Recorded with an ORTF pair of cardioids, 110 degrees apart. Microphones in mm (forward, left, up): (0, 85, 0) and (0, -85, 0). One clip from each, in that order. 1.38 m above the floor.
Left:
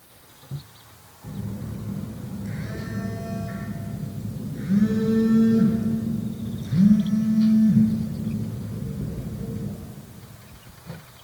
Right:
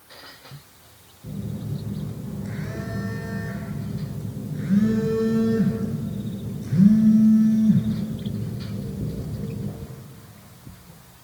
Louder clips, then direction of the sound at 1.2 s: Right 1 dB; 10° right.